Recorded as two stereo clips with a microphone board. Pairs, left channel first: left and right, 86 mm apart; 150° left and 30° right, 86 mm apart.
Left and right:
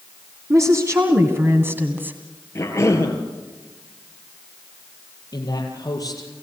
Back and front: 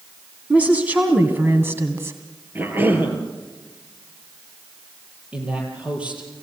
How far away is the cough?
About 4 m.